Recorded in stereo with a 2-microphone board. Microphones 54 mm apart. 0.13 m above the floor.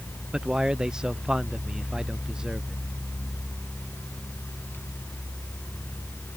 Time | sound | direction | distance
0.3 | a man speaking | 10° right (ahead or behind) | ?